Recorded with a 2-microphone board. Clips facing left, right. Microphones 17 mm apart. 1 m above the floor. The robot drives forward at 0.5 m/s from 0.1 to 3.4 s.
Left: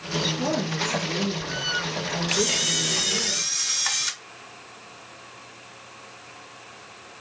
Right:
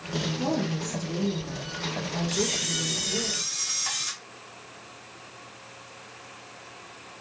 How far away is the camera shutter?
About 0.8 m.